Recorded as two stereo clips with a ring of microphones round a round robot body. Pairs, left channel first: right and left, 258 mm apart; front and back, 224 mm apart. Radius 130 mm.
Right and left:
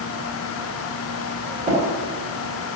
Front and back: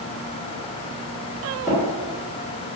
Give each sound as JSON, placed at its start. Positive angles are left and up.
{"t": 1.7, "sound": "tapping", "azimuth_deg": 105, "distance_m": 1.5}